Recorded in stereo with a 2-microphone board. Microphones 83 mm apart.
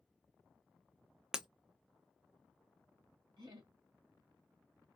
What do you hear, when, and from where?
1.3 s breaking glass: 5° right (ahead or behind), 0.5 m
3.4 s laughter: 55° right (ahead or behind), 1.6 m